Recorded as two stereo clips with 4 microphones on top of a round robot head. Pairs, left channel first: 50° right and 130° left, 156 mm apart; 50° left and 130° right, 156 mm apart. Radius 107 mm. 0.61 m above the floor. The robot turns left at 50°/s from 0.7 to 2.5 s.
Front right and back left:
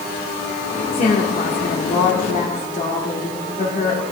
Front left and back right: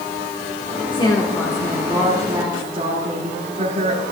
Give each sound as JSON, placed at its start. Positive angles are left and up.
{"t": 0.9, "sound": "a woman speaking", "azimuth_deg": -5, "distance_m": 2.0}